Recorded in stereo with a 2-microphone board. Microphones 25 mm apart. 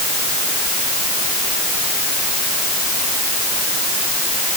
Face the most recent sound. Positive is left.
No sound to turn to.